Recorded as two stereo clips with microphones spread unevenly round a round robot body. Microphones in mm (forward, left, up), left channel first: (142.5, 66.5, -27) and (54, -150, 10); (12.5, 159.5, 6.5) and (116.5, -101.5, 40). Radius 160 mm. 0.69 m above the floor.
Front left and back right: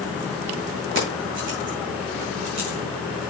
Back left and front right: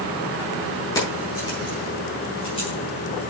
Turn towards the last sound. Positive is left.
turn(degrees=180)